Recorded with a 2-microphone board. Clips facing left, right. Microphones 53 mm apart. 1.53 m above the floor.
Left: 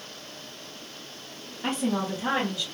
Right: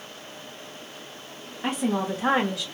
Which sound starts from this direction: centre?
A woman speaking, at 1.6 s.